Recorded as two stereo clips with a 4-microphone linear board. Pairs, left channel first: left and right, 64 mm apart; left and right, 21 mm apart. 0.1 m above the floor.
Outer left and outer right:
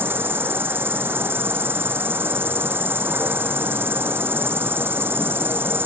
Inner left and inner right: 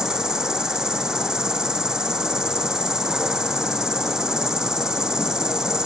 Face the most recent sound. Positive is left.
turn(degrees=-35)  # may be behind; listen again after turning